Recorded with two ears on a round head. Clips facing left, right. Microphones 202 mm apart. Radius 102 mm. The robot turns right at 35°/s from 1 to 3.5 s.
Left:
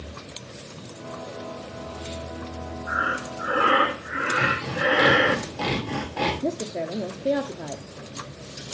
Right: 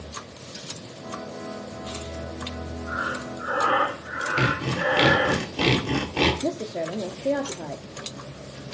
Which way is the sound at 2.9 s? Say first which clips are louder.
Left 2 dB; 20° left (ahead or behind).